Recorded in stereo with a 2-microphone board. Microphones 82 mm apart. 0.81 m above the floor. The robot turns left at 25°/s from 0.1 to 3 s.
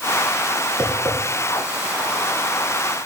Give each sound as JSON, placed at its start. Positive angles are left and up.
{"t": 0.8, "sound": "tapping", "side_deg": -70, "distance_m": 4.0}